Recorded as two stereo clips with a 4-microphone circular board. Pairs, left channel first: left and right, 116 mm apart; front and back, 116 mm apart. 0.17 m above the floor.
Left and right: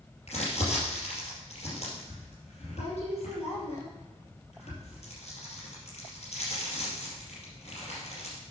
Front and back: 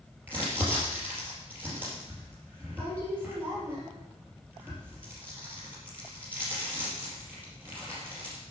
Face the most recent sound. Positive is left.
turn(degrees=110)